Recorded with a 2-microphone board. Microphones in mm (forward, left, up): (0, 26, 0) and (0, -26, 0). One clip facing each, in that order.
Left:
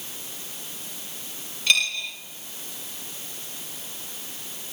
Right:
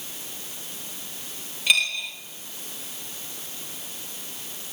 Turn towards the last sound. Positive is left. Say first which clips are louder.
# even
turn(degrees=-5)  # may be behind; listen again after turning